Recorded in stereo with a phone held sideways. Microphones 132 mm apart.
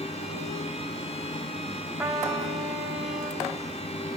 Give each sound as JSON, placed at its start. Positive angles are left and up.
{"t": 0.0, "sound": "a fan", "side_deg": 50, "distance_m": 2.5}
{"t": 2.0, "sound": "a trumpet", "side_deg": -10, "distance_m": 3.0}